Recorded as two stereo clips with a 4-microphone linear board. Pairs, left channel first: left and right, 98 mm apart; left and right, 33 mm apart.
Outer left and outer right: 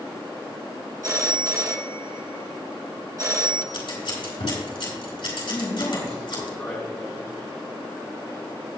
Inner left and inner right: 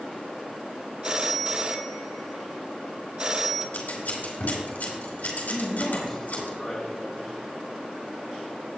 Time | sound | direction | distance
1.0 | a phone ringing | 35° right (ahead or behind) | 1.0 m
3.7 | scissors | 70° left (ahead or behind) | 4.5 m
5.5 | a man speaking | 25° left (ahead or behind) | 3.5 m